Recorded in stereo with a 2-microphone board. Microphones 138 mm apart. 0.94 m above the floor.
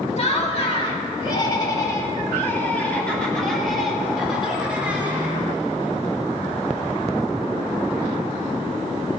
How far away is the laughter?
About 2 m.